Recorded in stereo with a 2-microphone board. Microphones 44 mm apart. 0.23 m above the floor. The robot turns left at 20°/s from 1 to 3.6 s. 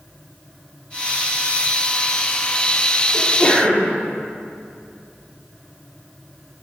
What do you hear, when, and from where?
3.1 s a sneeze: 40° left (ahead or behind), 4 m; by 4.0 s 30° left (ahead or behind), 4 m